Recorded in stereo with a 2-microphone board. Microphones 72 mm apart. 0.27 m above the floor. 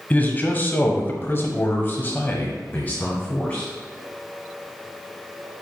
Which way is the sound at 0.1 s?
25° left (ahead or behind).